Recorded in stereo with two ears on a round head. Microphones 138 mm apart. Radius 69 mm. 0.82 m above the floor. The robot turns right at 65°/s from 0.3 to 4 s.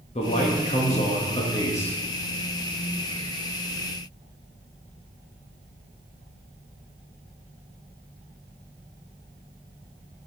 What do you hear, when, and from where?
0.1 s a man speaking: 60° left, 1.2 m; by 2.0 s 165° left, 1.2 m